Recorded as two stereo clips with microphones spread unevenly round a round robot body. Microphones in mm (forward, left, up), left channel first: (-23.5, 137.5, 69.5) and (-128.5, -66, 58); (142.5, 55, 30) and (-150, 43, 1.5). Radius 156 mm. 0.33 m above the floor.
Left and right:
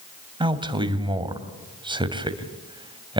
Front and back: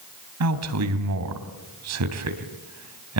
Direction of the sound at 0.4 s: 175° left.